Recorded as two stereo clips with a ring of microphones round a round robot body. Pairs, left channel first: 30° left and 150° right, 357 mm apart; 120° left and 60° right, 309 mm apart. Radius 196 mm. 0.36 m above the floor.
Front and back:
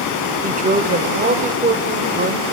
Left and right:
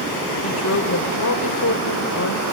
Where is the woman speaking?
150° left, 1.6 m.